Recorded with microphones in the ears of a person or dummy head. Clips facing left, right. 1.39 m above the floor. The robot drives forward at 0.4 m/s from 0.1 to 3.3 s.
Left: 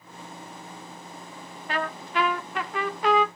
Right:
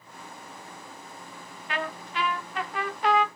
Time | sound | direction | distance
1.7 | a trumpet | 35° left (ahead or behind) | 0.9 m